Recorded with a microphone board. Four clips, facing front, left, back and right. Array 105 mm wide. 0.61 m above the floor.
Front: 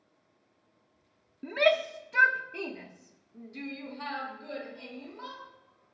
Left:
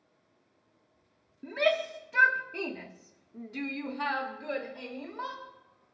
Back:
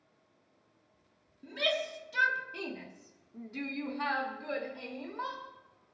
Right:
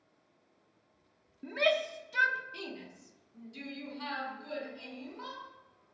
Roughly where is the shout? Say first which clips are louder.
Left 2 dB, front 8 dB; ahead.